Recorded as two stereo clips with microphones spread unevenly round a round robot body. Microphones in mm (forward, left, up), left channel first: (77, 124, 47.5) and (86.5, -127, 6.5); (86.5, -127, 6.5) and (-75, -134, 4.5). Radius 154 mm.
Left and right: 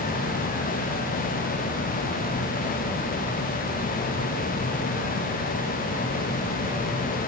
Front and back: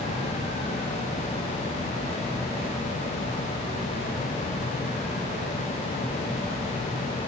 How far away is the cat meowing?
I don't hear a cat meowing.